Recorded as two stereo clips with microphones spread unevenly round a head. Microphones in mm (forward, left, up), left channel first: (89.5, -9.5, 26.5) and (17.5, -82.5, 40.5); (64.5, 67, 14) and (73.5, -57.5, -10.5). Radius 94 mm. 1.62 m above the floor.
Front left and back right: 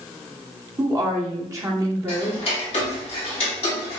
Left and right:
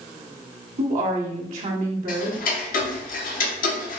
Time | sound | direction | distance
0.8 | a woman speaking | 75° right | 1.2 m
2.1 | ticking | 90° left | 0.7 m